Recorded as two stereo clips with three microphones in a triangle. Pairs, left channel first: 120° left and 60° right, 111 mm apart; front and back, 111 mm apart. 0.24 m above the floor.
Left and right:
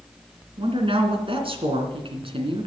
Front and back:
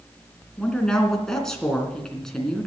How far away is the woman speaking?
About 2.5 m.